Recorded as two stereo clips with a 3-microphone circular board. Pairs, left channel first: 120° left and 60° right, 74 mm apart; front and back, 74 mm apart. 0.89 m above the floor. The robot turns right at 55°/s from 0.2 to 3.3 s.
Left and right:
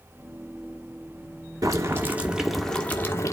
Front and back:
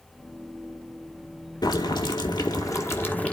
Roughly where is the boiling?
Ahead.